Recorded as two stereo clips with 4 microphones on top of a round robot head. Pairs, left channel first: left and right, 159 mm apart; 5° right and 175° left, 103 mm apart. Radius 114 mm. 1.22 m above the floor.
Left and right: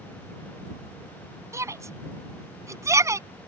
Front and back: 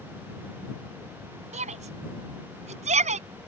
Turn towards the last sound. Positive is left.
turn(degrees=-160)